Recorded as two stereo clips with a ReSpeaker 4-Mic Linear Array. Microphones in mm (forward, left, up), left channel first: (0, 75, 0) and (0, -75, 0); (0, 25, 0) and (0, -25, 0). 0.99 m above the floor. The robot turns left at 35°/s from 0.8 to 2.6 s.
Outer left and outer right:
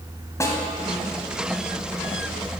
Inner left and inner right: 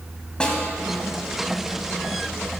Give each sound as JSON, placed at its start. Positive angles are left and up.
{"t": 0.4, "sound": "a snare drum", "side_deg": 20, "distance_m": 1.8}